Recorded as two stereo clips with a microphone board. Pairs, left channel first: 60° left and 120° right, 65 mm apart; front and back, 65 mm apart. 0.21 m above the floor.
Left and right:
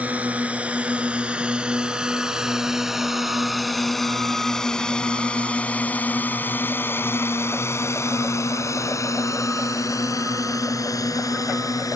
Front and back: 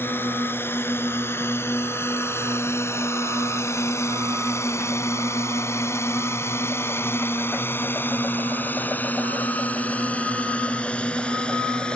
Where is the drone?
55° right; by 12.0 s 75° left.